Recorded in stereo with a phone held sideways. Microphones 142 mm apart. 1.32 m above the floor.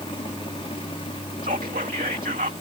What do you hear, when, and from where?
0.0 s a fan: 40° left (ahead or behind)
1.4 s whispering: 80° right